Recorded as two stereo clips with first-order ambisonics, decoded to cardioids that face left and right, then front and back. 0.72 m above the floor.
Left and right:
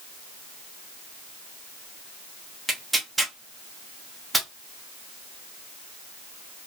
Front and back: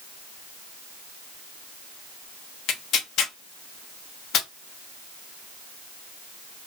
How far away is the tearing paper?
About 0.6 m.